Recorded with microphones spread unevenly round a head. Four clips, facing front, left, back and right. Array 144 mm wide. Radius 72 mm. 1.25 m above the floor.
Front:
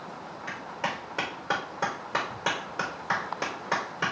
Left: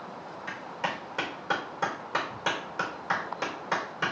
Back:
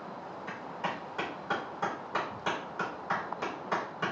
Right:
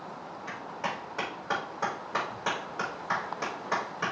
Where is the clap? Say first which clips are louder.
Left 1 dB, front 3 dB; 25° left, 4 m.